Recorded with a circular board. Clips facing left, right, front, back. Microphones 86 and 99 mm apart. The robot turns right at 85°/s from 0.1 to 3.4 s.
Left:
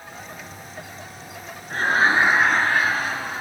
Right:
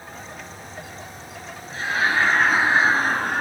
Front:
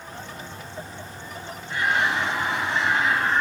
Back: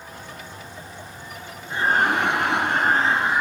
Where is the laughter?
115° left, 3 m; by 3.4 s 100° right, 3 m.